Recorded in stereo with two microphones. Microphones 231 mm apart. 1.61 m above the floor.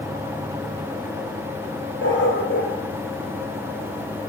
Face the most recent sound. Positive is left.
turn(degrees=55)  # may be behind; listen again after turning